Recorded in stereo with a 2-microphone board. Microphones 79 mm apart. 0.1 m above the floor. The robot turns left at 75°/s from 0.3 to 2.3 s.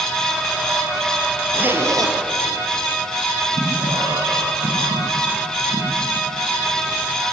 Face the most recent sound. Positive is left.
turn(degrees=-85)